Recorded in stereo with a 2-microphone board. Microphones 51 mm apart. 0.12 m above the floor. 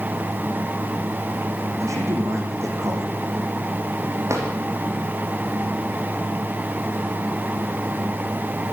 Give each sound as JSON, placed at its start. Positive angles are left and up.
{"t": 1.8, "sound": "a man speaking", "side_deg": -75, "distance_m": 5.5}
{"t": 4.3, "sound": "a drawer", "side_deg": -70, "distance_m": 4.5}